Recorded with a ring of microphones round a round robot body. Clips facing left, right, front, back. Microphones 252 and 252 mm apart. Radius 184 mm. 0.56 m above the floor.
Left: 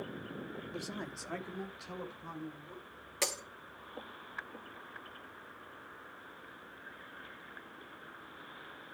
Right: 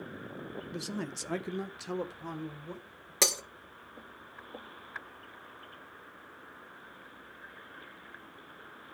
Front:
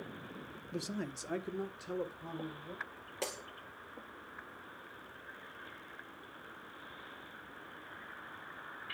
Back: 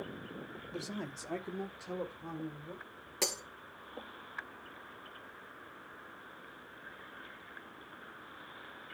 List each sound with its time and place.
0.7 s a man speaking: 50° right, 1.0 m; by 3.1 s 85° right, 3 m
3.2 s breaking glass: 125° right, 1.4 m